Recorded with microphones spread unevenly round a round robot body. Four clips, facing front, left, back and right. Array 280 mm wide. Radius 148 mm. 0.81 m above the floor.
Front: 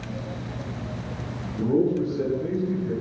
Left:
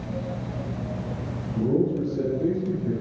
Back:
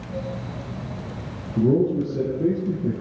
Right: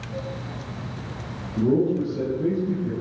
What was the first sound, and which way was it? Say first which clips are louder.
A man speaking: right 2 dB, back 2 dB; 170° right.